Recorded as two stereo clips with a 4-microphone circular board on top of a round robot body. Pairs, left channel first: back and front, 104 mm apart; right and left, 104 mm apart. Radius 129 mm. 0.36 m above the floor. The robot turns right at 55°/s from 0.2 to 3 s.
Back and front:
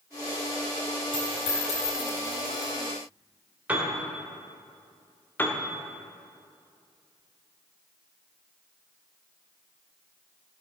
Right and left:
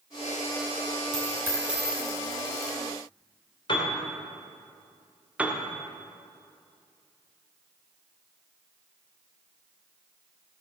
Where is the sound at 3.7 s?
75° right, 2.5 m.